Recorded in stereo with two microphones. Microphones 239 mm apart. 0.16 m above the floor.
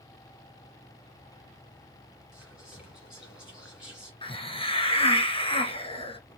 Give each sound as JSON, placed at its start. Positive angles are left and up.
{"t": 2.3, "sound": "whispering", "side_deg": -5, "distance_m": 1.9}
{"t": 4.2, "sound": "a hiss", "side_deg": 25, "distance_m": 0.6}